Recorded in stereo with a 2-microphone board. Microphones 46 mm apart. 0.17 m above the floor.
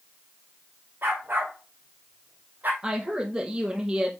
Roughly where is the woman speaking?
Centre.